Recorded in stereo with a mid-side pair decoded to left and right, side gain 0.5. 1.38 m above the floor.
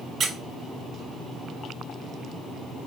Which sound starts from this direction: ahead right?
A squeak, at 0.2 s.